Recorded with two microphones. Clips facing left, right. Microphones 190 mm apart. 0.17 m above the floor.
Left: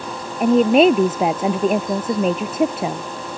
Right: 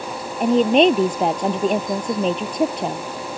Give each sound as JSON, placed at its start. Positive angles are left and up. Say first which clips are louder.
{"t": 0.4, "sound": "a woman speaking", "louder": "left 2 dB", "side_deg": 5}